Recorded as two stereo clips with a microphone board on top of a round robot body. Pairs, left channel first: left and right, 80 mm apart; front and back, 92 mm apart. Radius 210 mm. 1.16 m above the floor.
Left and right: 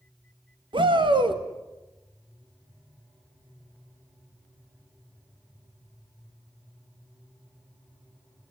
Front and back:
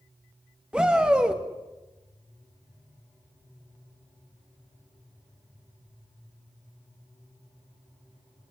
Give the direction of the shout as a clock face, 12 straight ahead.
3 o'clock.